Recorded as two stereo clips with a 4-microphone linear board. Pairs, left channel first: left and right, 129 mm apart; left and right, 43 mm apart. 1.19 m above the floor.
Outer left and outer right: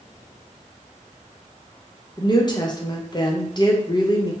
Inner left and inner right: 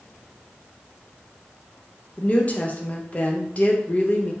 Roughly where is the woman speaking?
Left.